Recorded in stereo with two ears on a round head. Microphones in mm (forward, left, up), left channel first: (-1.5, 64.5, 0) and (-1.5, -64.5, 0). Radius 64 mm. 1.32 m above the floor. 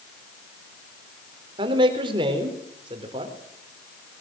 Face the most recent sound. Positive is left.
turn(degrees=-35)  # may be behind; listen again after turning